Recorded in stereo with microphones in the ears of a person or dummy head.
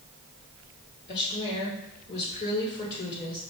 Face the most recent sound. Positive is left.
turn(degrees=55)  # may be behind; listen again after turning